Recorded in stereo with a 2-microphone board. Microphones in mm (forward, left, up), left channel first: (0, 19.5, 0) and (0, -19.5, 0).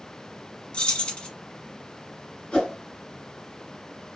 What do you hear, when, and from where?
0.7 s keys jangling: 25° left (ahead or behind), 0.8 m
2.5 s a whoosh: 30° left (ahead or behind), 2 m